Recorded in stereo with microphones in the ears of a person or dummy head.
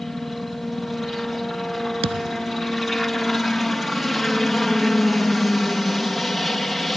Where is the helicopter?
Centre (ahead or behind).